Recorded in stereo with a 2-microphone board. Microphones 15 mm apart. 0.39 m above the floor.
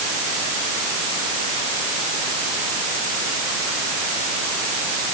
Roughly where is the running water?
I don't hear running water.